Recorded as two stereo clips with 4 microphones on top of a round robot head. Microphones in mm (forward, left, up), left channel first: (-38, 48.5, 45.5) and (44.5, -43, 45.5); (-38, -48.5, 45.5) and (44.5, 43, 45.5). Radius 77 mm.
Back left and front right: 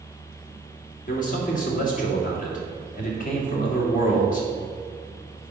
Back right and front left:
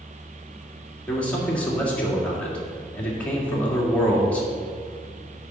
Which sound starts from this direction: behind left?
A man speaking, at 1.1 s.